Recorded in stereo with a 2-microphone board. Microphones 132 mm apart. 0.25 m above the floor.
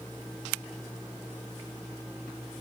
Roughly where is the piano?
No piano in this recording.